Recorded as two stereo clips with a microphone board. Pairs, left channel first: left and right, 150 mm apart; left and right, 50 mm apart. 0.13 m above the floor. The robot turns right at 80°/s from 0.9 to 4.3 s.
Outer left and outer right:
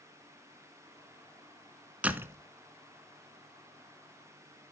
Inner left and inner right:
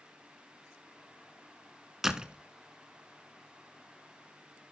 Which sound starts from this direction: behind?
A door slam, at 2.0 s.